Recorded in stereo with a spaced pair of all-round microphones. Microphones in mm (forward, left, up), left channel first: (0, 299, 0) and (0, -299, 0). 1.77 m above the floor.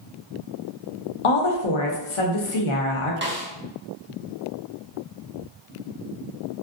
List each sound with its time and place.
1.2 s a woman speaking: 55° left (ahead or behind), 0.6 m
3.2 s a snare drum: 20° right (ahead or behind), 0.5 m